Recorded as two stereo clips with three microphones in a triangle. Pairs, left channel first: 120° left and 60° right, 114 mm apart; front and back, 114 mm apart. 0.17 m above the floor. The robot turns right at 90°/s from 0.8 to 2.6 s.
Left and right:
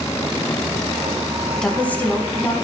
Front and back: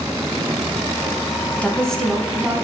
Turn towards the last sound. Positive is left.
turn(degrees=135)